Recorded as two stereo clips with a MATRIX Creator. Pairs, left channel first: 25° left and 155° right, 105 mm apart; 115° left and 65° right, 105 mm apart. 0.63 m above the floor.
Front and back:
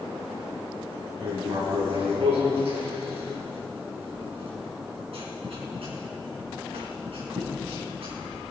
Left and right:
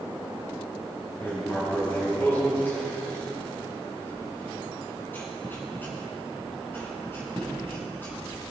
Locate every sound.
1.2 s writing: straight behind, 4 m